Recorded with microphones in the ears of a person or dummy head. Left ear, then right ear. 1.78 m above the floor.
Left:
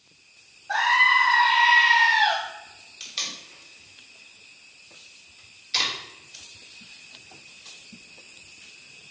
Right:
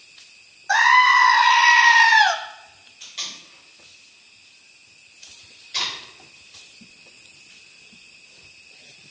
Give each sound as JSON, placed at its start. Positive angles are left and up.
{"t": 0.7, "sound": "a scream", "side_deg": -70, "distance_m": 1.0}
{"t": 3.0, "sound": "tape being pulled", "side_deg": 35, "distance_m": 3.5}